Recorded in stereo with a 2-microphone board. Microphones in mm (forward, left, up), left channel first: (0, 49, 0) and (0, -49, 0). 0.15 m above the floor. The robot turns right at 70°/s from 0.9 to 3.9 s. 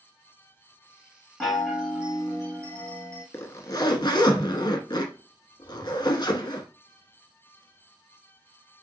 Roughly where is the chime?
Behind.